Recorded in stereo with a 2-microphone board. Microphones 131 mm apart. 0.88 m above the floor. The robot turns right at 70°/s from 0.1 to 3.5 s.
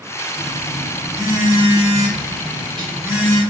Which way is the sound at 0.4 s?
150° left.